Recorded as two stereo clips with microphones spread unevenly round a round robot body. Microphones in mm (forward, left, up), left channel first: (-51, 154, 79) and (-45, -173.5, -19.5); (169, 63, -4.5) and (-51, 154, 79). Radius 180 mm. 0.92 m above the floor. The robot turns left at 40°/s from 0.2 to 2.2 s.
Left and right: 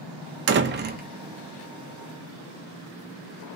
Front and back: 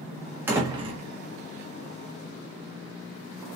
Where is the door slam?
105° right, 0.5 m; by 1.0 s 125° right, 0.5 m.